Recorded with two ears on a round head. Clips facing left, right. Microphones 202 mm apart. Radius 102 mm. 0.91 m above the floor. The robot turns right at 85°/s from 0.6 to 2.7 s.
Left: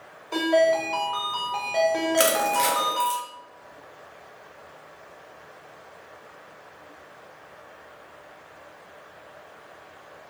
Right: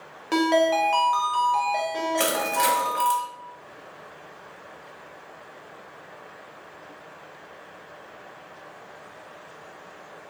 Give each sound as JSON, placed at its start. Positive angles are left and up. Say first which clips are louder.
{"t": 0.3, "sound": "a ringtone", "louder": "even", "azimuth_deg": -85, "distance_m": 0.6}
{"t": 2.2, "sound": "crushing", "louder": "left 3 dB", "side_deg": 30, "distance_m": 0.7}